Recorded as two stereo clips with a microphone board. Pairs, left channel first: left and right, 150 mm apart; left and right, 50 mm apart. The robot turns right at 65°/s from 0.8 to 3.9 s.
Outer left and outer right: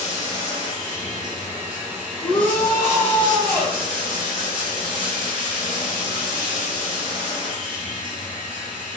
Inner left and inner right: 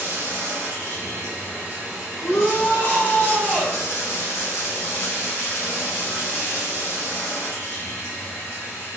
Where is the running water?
95° right, 1.7 m; by 9.0 s 105° left, 1.7 m.